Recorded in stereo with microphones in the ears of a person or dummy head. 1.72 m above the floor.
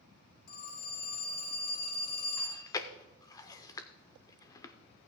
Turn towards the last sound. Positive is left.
turn(degrees=20)  # may be behind; listen again after turning